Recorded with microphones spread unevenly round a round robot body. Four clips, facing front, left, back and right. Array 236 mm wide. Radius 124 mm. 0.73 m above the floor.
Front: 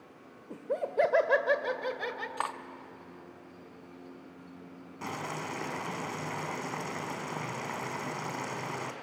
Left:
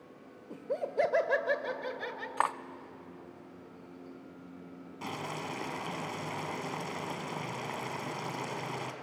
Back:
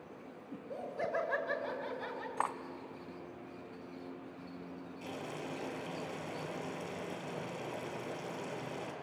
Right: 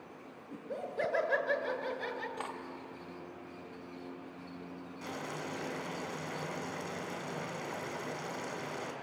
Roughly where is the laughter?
Ahead left.